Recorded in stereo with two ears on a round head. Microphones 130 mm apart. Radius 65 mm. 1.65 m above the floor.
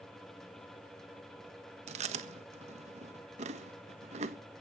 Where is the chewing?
45° right (ahead or behind), 1.4 m.